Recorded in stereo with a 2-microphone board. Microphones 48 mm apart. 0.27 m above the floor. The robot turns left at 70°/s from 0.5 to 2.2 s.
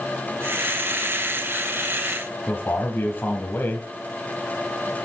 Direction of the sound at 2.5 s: 45° left (ahead or behind).